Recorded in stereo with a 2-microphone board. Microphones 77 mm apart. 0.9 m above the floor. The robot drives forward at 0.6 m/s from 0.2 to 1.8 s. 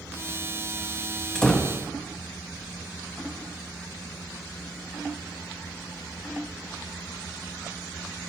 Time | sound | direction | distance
1.4 | a door slam | 10° left (ahead or behind) | 0.8 m